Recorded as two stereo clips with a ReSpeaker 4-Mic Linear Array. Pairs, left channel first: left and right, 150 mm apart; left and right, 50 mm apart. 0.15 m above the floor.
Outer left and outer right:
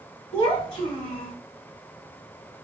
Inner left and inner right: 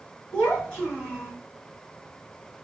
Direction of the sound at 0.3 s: 25° left (ahead or behind).